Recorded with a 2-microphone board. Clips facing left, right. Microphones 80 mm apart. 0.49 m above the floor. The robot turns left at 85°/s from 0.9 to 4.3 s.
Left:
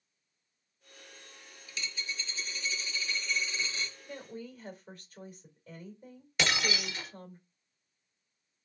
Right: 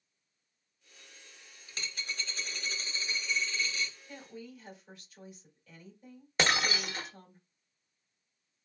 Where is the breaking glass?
35° right (ahead or behind), 0.8 m.